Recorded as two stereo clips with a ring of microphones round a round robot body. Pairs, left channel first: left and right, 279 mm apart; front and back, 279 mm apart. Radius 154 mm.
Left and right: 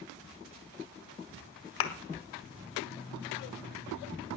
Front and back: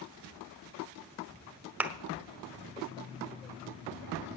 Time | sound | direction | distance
1.8 | a thud | 95° left | 1.6 m